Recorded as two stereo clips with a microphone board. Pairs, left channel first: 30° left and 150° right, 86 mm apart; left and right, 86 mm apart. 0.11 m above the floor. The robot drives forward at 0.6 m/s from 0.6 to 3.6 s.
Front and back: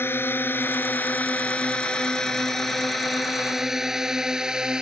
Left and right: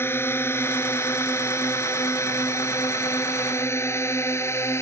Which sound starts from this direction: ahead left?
A drone, at 0.0 s.